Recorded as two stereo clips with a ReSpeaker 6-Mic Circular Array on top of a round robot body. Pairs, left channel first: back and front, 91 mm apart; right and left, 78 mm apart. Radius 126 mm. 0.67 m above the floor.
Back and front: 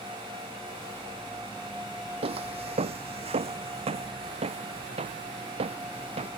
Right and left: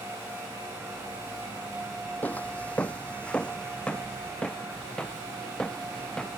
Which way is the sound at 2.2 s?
20° right.